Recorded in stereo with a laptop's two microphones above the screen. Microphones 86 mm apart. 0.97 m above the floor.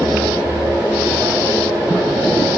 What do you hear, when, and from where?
0.0 s a fan: 20° right (ahead or behind), 1.2 m